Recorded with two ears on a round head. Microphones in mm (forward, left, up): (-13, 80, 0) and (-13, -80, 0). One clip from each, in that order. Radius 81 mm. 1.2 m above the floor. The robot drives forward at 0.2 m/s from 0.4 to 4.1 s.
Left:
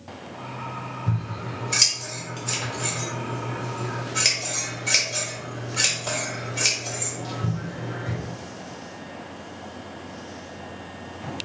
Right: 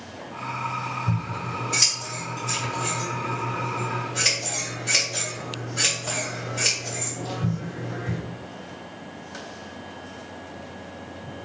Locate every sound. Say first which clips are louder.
1.1 s scissors: right 3 dB; 70° left (ahead or behind), 1.8 m; by 8.2 s 60° left (ahead or behind), 1.9 m